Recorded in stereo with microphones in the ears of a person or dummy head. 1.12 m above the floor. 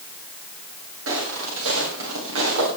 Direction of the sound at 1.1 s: 80° right.